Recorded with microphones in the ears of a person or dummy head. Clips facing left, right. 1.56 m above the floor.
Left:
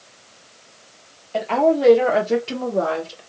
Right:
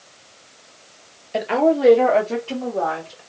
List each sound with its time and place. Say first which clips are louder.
1.3 s a woman speaking: even; 25° right (ahead or behind), 1.3 m; by 3.2 s 45° left (ahead or behind), 1.7 m